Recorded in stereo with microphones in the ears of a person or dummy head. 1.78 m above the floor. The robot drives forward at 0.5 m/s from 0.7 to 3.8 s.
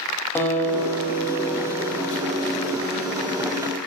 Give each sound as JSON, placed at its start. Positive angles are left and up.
{"t": 0.3, "sound": "a guitar", "side_deg": 10, "distance_m": 0.9}